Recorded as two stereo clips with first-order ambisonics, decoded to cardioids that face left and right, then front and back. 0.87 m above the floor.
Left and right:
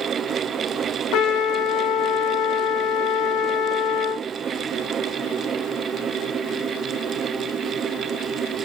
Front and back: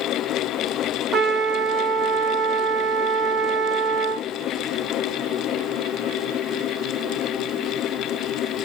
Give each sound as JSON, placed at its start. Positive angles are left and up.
{"t": 1.1, "sound": "a trumpet", "azimuth_deg": 115, "distance_m": 0.9}